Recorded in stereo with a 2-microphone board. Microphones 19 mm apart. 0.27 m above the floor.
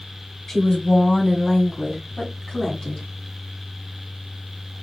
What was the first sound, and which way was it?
A woman speaking, 30° left (ahead or behind).